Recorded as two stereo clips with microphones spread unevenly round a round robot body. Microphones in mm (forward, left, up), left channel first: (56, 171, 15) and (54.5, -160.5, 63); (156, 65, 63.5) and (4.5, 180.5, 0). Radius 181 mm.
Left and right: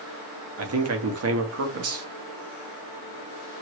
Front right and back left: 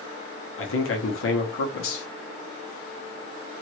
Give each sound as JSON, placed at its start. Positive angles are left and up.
{"t": 0.6, "sound": "a man speaking", "azimuth_deg": -45, "distance_m": 1.0}